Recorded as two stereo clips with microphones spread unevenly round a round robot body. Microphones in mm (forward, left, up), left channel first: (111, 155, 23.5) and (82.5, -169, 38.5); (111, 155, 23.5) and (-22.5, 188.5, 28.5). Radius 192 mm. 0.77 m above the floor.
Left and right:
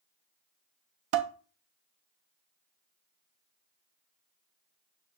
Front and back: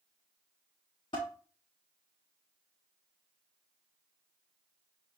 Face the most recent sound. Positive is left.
turn(degrees=-80)